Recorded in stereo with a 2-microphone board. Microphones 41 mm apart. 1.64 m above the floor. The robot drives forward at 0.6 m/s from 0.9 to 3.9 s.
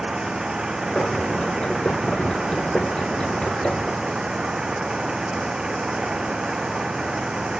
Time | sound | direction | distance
0.0 | an engine running | 20° right (ahead or behind) | ?